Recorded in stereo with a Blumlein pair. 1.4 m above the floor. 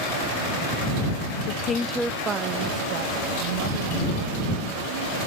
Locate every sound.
1.5 s a woman speaking: 40° left; by 5.2 s 65° right